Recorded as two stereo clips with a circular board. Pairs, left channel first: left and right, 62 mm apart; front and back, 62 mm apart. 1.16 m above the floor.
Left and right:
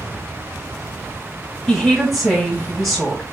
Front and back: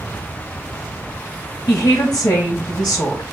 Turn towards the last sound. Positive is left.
turn(degrees=0)